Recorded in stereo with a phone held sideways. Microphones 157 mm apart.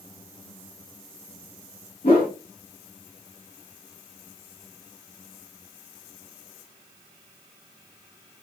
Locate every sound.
2.0 s a whoosh: 70° left (ahead or behind), 2.0 m